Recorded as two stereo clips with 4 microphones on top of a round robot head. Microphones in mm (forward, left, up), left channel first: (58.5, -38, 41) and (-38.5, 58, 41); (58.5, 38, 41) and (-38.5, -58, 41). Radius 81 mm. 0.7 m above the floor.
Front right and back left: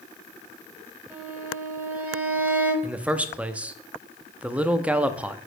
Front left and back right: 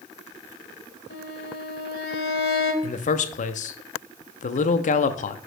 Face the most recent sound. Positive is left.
turn(degrees=55)